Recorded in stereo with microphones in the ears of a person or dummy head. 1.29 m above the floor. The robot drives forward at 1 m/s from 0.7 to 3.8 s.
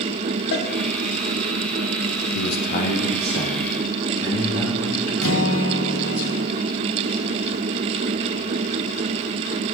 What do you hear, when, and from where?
0.5 s a cowbell: 65° left (ahead or behind), 1.0 m
2.4 s a man speaking: 60° left (ahead or behind), 0.7 m; by 6.2 s 20° left (ahead or behind), 1.9 m
5.2 s a guitar: 80° left, 1.0 m